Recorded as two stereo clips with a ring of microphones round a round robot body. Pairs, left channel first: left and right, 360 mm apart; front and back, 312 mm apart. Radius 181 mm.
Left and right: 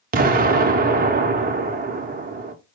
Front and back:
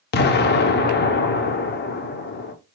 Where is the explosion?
35° right, 0.6 m.